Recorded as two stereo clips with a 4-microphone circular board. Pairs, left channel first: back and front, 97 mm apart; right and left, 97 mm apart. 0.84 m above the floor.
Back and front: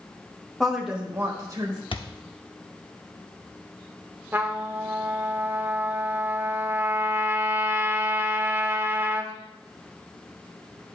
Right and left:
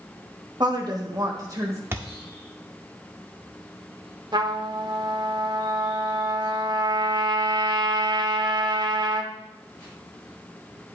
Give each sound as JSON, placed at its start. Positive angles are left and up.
{"t": 0.6, "sound": "a woman speaking", "azimuth_deg": 100, "distance_m": 1.3}
{"t": 1.9, "sound": "a thud", "azimuth_deg": 155, "distance_m": 0.6}
{"t": 4.3, "sound": "a trumpet", "azimuth_deg": 65, "distance_m": 0.6}